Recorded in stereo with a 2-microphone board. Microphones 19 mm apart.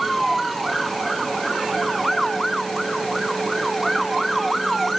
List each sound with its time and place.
Only background noise.